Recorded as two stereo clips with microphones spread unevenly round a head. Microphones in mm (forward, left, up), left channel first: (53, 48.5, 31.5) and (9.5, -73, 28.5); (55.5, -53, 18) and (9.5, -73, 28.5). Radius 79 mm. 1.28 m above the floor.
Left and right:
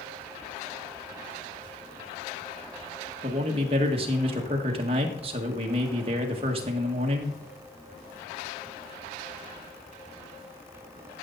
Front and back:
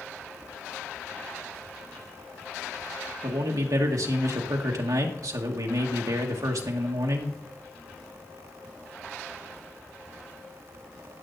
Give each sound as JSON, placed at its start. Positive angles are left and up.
{"t": 3.2, "sound": "a man speaking", "azimuth_deg": -160, "distance_m": 1.6}